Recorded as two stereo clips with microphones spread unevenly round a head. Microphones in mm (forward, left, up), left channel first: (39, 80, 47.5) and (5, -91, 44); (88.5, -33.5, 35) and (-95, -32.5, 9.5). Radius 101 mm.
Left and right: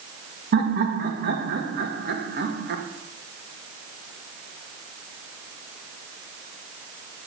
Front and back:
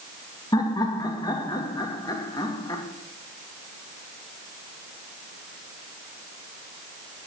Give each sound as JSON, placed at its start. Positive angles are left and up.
{"t": 0.5, "sound": "laughter", "azimuth_deg": -70, "distance_m": 2.0}